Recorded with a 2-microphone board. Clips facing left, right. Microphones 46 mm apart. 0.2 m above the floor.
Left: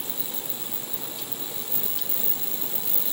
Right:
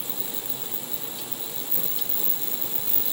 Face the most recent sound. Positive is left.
No sound to turn to.